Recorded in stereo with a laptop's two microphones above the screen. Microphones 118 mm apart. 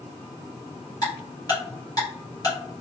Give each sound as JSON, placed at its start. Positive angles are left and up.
{"t": 1.0, "sound": "ticking", "side_deg": 30, "distance_m": 1.2}